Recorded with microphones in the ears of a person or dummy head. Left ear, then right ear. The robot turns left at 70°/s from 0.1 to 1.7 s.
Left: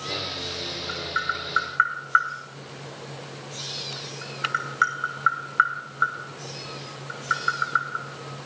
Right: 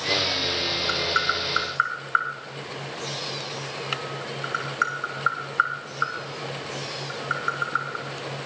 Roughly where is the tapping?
Right.